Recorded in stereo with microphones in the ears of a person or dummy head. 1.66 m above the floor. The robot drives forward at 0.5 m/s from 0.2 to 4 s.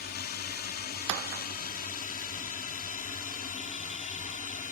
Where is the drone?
50° left (ahead or behind); by 4.7 s 40° left (ahead or behind).